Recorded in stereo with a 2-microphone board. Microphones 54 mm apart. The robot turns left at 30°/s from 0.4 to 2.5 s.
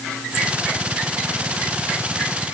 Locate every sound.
Only background noise.